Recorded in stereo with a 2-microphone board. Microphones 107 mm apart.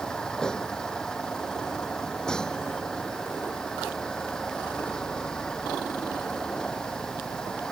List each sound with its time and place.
0.0 s a vehicle: 5° left (ahead or behind)